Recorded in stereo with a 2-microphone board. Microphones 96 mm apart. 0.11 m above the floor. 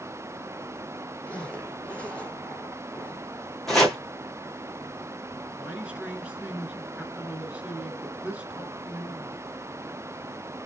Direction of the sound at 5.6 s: 15° right (ahead or behind).